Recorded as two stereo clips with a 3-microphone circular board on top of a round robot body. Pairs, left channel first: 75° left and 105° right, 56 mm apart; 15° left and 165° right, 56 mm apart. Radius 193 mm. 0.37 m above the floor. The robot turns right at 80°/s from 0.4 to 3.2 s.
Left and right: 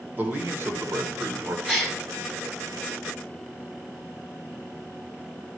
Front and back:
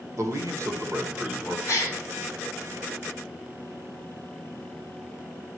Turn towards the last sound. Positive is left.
turn(degrees=95)